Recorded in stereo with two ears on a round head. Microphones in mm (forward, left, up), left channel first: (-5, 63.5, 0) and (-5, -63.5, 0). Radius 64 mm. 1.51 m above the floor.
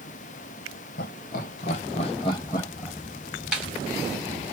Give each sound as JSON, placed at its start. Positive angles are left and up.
{"t": 1.0, "sound": "laughter", "side_deg": 70, "distance_m": 1.3}
{"t": 3.5, "sound": "a snare drum", "side_deg": -5, "distance_m": 1.1}